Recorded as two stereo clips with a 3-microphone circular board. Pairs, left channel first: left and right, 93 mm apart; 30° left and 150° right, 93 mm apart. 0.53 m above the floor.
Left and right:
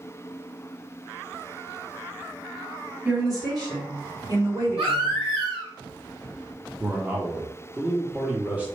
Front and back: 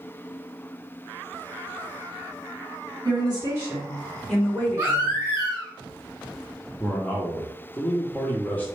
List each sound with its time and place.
3.0 s a woman speaking: 135° right, 1.3 m; by 5.2 s 30° right, 2 m
4.8 s a baby crying: 85° right, 1.7 m
6.8 s a man speaking: 30° right, 0.8 m